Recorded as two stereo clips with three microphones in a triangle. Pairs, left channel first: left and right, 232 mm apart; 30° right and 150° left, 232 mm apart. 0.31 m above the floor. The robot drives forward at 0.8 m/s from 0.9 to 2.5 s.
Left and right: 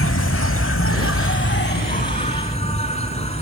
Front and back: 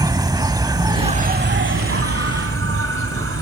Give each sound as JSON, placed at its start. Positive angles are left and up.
{"t": 0.0, "sound": "an insect", "azimuth_deg": 80, "distance_m": 0.8}